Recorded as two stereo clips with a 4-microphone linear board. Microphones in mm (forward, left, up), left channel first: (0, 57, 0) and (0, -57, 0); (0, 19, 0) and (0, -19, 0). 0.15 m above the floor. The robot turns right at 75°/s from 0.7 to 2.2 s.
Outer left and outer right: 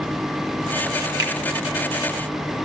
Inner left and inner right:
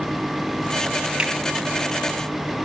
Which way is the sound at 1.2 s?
30° right (ahead or behind).